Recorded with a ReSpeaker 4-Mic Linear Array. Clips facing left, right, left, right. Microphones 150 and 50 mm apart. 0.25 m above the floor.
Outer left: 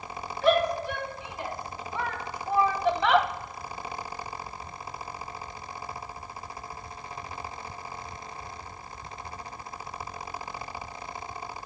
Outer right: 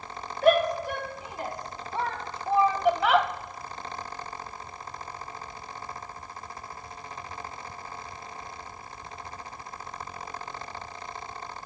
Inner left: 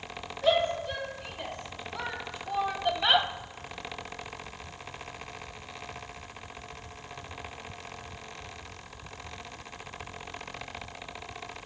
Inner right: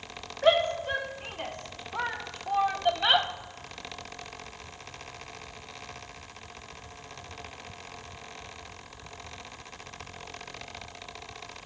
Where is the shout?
45° right (ahead or behind), 2.5 m; by 3.3 s 5° left (ahead or behind), 1.0 m.